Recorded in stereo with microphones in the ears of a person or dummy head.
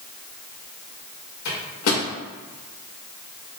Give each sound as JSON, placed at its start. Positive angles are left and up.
{"t": 1.4, "sound": "a microwave", "side_deg": 85, "distance_m": 1.4}